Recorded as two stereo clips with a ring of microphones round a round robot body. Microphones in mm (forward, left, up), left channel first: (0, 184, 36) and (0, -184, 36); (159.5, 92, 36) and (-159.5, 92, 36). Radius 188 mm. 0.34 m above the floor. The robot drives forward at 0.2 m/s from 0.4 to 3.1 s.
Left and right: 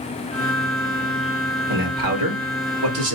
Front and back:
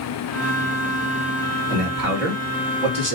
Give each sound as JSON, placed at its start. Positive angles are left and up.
{"t": 1.7, "sound": "a man speaking", "azimuth_deg": -120, "distance_m": 1.9}